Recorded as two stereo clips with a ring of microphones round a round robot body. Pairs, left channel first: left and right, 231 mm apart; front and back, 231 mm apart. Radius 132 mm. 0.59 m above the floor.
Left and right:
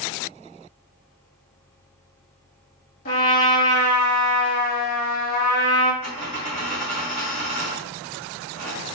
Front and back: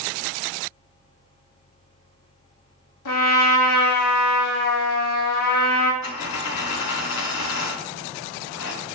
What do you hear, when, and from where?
3.0 s a trumpet: 30° left, 0.7 m
6.0 s a dropped coin: 25° left, 1.2 m